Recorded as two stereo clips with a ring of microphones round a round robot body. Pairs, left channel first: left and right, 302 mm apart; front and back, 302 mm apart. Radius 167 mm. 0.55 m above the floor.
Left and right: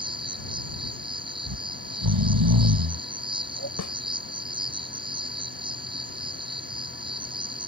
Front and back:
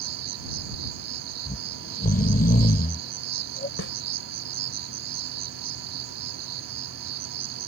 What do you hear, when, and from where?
0.0 s an insect: 165° right
1.5 s snoring: 65° right
3.8 s a snare drum: 55° left